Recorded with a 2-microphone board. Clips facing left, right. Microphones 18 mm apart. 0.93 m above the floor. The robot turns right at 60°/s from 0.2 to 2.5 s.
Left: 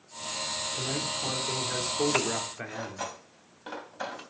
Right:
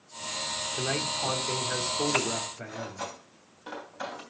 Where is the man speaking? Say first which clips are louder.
Right 2 dB; 65° right, 2.5 m; by 3.1 s 40° left, 2.5 m.